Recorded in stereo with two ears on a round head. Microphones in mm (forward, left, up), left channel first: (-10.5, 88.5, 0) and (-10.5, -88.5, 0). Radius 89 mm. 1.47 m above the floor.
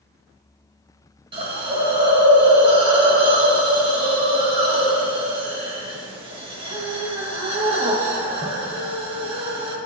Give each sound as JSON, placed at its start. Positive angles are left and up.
{"t": 1.3, "sound": "a hiss", "side_deg": -25, "distance_m": 1.4}